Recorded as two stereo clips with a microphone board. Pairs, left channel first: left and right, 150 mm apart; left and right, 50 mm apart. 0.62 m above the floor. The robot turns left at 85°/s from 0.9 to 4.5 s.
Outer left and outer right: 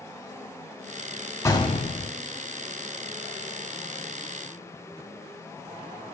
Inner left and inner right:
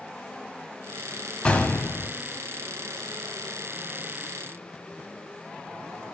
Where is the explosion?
155° left, 0.8 m; by 2.1 s 100° left, 0.8 m.